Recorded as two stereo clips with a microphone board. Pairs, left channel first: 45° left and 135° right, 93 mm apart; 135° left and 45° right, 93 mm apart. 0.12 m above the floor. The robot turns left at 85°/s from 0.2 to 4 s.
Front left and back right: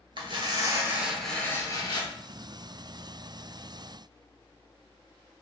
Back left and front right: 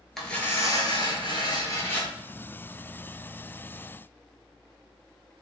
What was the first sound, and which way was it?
Tearing paper, 140° right.